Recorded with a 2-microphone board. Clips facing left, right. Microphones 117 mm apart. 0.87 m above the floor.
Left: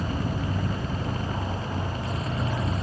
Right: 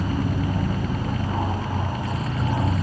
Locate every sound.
0.0 s an aircraft: 45° right (ahead or behind)